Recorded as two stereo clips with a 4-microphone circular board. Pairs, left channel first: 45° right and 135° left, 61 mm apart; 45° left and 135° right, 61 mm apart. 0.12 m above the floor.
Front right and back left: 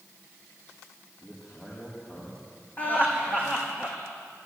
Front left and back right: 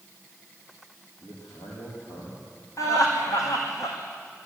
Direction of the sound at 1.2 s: 15° left.